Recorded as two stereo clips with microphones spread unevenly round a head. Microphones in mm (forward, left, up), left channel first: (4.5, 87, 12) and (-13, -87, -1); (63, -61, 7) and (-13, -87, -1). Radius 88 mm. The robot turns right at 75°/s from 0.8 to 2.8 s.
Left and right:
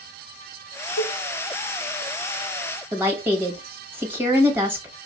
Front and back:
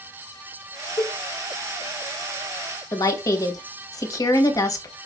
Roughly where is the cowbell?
Left.